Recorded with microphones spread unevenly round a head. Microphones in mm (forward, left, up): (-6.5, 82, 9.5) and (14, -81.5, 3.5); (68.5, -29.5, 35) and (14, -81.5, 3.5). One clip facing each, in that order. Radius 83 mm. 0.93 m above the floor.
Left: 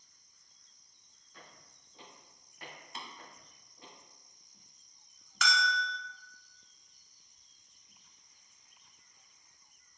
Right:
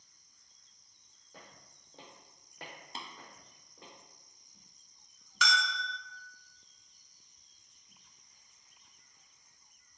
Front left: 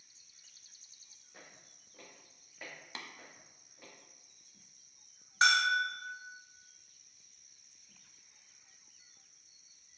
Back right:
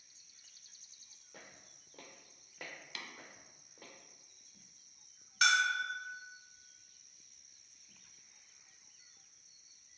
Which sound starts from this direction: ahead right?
Tapping, at 3.0 s.